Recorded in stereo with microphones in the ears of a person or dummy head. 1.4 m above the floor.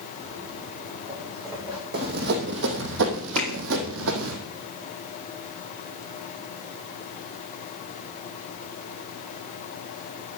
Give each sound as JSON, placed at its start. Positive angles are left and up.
{"t": 0.2, "sound": "footsteps", "side_deg": -35, "distance_m": 8.0}
{"t": 1.9, "sound": "running footsteps", "side_deg": -50, "distance_m": 3.0}
{"t": 3.4, "sound": "a finger snap", "side_deg": 5, "distance_m": 4.0}